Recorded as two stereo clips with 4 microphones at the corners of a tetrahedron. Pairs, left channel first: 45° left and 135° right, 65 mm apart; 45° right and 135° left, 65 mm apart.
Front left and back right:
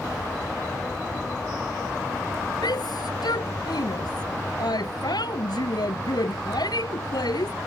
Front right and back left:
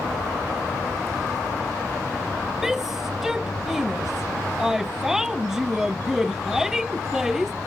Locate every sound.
2.6 s a shout: 50° left